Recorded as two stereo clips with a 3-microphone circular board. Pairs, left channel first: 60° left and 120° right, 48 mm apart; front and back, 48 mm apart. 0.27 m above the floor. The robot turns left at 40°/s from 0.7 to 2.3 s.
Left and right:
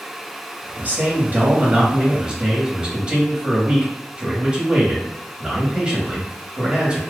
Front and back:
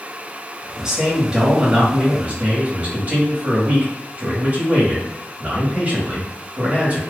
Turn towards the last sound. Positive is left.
turn(degrees=-170)